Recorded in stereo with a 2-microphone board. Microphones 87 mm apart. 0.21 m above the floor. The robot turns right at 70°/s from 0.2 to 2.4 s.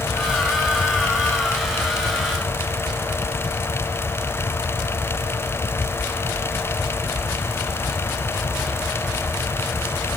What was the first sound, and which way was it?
Only background noise.